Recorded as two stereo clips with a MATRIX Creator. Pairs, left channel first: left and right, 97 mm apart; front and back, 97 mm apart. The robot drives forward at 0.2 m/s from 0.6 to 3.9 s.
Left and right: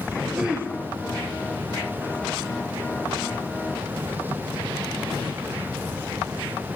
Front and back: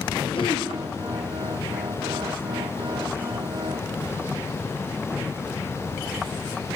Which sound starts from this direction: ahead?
Throat clearing, at 0.3 s.